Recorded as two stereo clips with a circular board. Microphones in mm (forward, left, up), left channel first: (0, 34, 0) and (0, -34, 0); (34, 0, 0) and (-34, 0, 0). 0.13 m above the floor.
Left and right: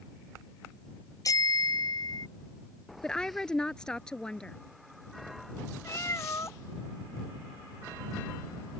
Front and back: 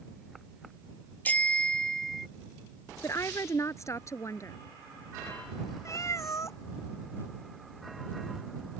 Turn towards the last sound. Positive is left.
turn(degrees=40)